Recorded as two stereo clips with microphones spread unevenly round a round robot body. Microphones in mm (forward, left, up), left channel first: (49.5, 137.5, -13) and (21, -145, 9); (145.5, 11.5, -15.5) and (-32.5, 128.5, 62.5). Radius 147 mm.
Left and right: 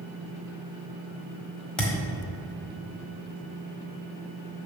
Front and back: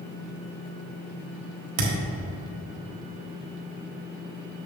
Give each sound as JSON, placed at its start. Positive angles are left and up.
{"t": 1.8, "sound": "a thud", "azimuth_deg": 170, "distance_m": 1.4}